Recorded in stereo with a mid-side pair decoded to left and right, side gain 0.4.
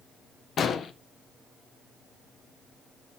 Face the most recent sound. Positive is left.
turn(degrees=60)